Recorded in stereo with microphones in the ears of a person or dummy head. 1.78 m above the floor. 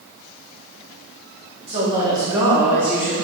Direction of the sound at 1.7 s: 30° right (ahead or behind).